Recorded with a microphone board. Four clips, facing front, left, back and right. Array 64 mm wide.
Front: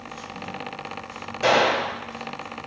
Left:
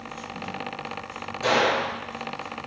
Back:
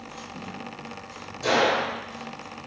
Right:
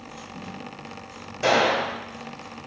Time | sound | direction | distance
1.4 | a gunshot | 30° right | 1.9 m